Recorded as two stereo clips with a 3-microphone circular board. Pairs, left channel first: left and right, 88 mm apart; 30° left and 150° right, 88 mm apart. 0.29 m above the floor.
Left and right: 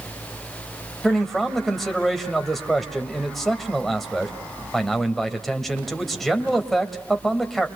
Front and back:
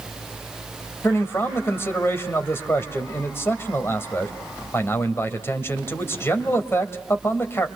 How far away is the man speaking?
About 1.7 m.